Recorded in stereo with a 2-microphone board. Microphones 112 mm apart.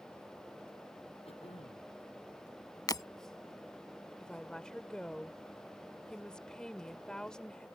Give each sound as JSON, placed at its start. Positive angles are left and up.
{"t": 1.3, "sound": "throat clearing", "side_deg": 65}
{"t": 2.9, "sound": "breaking glass", "side_deg": 35}
{"t": 4.2, "sound": "a woman speaking", "side_deg": 5}